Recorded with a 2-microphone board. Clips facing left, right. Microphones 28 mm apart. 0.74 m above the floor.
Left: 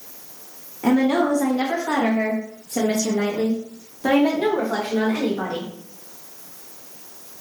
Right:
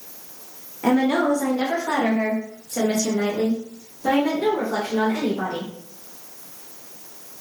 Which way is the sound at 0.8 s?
10° right (ahead or behind).